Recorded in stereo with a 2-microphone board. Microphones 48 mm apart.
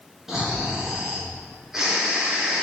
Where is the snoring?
10° right (ahead or behind), 3 m.